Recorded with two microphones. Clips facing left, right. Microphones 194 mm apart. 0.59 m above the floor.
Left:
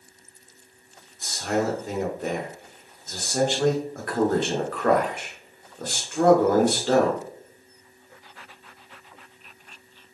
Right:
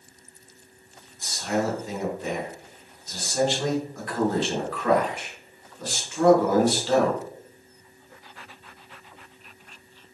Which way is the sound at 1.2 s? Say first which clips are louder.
Left 1 dB; 55° left (ahead or behind).